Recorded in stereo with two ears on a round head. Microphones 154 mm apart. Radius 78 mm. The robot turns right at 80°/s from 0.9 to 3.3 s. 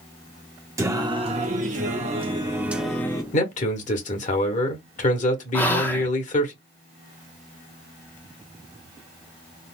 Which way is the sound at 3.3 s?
45° left (ahead or behind).